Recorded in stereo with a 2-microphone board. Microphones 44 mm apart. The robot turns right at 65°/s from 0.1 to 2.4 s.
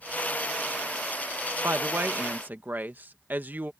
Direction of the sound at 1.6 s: 100° right.